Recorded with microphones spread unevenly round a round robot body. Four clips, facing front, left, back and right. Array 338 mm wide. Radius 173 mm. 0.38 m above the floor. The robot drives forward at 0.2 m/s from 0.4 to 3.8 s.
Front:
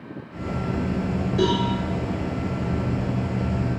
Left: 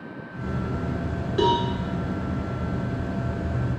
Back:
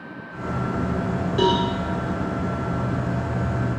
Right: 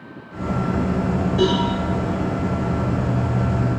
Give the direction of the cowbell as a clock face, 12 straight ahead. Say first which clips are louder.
Right 1 dB, back 2 dB; 8 o'clock.